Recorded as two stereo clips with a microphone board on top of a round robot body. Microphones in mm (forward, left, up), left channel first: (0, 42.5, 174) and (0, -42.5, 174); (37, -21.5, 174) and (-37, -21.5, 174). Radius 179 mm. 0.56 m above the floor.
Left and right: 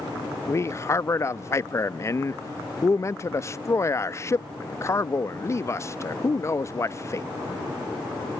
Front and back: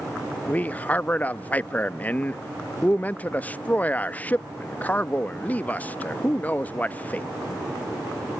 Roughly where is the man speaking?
Ahead left.